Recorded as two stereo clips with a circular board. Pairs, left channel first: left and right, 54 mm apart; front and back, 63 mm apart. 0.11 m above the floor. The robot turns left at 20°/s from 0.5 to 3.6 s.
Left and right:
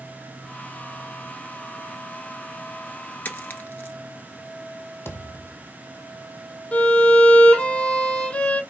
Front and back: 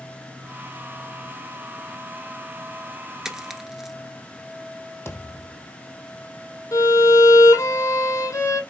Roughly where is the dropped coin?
Left.